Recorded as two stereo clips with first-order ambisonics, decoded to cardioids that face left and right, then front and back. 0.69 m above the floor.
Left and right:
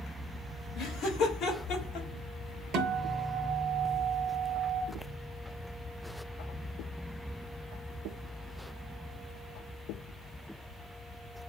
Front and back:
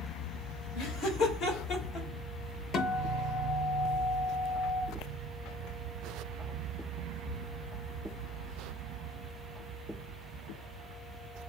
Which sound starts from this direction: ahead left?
Laughter, at 0.8 s.